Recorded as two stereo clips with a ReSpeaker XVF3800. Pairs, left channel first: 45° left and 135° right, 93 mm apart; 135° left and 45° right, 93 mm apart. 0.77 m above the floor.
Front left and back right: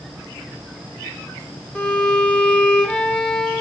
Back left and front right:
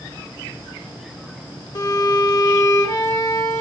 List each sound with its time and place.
1.8 s a violin: 120° left, 0.6 m